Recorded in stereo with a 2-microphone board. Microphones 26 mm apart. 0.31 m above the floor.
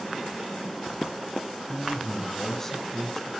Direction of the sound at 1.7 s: 20° left (ahead or behind).